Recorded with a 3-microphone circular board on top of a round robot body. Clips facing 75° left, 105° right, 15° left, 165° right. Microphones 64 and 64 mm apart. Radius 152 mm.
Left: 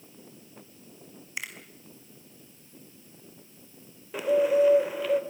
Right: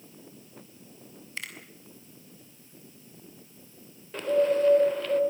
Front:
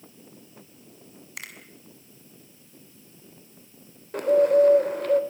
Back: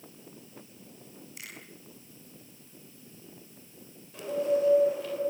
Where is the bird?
5° right, 3 m.